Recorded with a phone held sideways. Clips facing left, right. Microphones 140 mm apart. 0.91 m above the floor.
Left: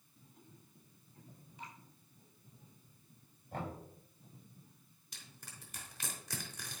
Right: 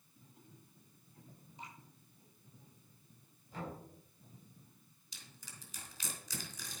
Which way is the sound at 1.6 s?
25° right (ahead or behind).